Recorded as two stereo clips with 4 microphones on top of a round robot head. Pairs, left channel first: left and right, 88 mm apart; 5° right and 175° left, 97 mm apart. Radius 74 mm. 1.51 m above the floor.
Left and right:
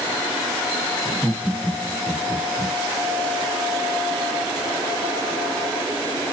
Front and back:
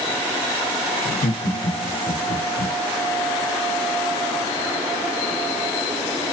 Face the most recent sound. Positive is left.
turn(degrees=0)